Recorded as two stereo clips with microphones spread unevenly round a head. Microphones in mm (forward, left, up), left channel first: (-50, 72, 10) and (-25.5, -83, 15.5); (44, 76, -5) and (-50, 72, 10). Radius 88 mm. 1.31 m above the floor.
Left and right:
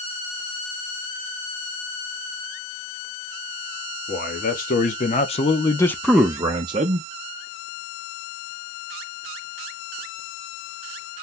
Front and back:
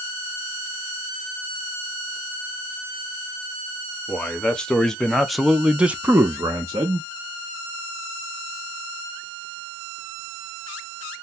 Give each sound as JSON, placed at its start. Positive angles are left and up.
{"t": 4.1, "sound": "a man speaking", "azimuth_deg": 75, "distance_m": 1.2}